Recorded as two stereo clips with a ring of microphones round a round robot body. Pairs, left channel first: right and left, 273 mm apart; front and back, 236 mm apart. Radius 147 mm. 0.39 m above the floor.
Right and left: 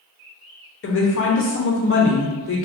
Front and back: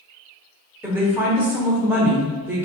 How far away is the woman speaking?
About 1.0 m.